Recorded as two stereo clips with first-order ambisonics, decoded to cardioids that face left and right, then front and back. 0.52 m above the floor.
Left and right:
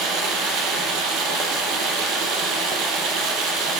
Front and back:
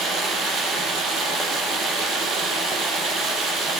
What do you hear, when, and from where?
0.0 s running water: 120° right, 5.5 m